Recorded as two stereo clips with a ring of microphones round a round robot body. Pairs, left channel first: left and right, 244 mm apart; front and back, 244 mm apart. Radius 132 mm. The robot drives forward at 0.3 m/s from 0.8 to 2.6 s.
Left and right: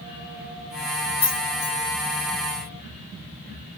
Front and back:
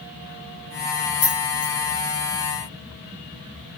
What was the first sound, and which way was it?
Keys jangling, 35° left.